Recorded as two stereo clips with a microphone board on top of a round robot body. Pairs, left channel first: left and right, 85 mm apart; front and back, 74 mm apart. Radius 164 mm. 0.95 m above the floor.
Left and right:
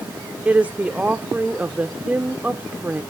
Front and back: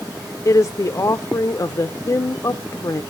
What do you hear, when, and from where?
0.5 s a woman speaking: 20° right, 0.6 m